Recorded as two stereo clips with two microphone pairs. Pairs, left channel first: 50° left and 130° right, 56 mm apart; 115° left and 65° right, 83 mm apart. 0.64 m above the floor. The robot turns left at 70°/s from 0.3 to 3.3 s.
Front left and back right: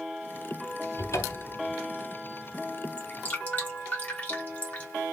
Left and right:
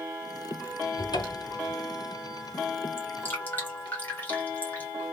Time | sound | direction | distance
1.0 | a cupboard door | 95° left | 0.6 m
3.0 | dripping | 95° left | 1.3 m